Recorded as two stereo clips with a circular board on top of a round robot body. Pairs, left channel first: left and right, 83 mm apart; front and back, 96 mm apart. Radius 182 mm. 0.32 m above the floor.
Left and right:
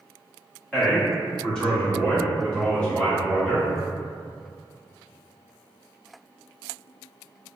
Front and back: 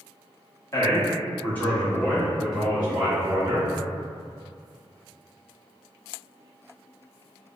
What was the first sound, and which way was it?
A man speaking, 5° left.